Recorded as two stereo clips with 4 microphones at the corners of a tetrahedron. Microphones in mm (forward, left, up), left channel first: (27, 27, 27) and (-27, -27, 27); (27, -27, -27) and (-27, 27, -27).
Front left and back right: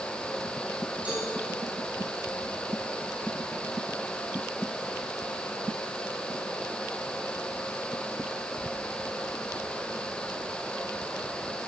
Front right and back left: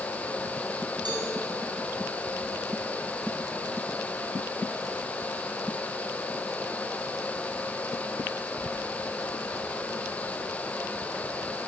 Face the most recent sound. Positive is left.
turn(degrees=155)